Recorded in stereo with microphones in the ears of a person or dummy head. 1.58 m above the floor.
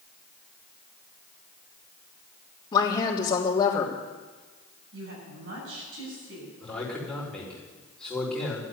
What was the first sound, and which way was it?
A woman speaking, 25° left (ahead or behind).